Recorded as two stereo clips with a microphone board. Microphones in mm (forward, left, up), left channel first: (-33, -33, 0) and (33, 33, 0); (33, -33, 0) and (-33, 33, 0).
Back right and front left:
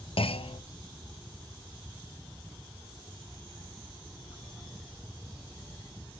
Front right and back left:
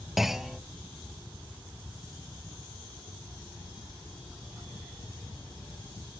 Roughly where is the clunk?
Behind right.